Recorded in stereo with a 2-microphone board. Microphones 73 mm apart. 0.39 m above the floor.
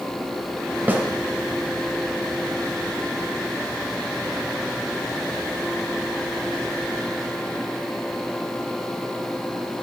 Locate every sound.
0.9 s a snare drum: 25° right (ahead or behind), 2 m